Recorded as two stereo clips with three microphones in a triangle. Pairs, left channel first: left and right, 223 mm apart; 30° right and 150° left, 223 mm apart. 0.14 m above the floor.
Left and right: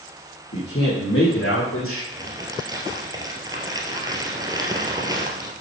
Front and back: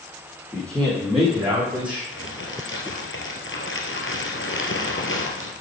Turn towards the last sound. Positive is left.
turn(degrees=-20)